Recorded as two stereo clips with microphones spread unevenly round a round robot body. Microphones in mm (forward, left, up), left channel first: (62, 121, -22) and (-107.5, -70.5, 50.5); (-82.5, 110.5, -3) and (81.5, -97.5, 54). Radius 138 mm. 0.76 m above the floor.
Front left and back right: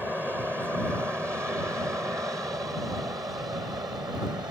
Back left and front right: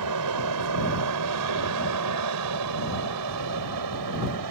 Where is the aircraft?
40° right; by 4.5 s 50° right.